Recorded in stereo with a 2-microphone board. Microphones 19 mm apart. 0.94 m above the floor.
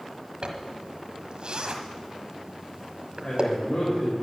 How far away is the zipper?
About 1.4 m.